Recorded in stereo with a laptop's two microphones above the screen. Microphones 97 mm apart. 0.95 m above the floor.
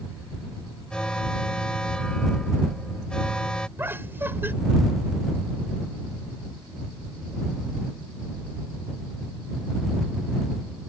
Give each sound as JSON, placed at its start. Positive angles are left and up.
{"t": 0.9, "sound": "an alarm", "side_deg": 10}
{"t": 3.8, "sound": "laughter", "side_deg": -25}